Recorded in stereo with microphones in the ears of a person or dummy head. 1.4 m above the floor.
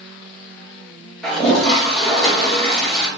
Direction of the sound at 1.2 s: 5° left (ahead or behind).